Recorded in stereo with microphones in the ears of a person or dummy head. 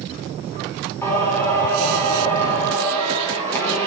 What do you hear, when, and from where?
1.0 s singing: 20° left (ahead or behind), 5 m